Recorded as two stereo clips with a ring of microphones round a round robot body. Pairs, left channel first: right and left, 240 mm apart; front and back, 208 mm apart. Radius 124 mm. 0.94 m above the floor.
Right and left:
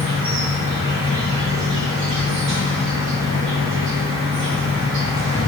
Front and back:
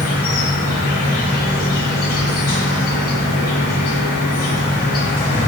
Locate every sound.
0.0 s an insect: 45° left, 1.3 m